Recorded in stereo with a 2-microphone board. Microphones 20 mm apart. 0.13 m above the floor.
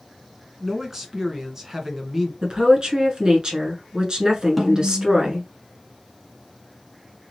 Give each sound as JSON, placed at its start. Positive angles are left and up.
{"t": 0.6, "sound": "a man speaking", "side_deg": -25, "distance_m": 1.1}
{"t": 2.4, "sound": "a woman speaking", "side_deg": -40, "distance_m": 1.3}
{"t": 4.6, "sound": "a snare drum", "side_deg": -10, "distance_m": 1.0}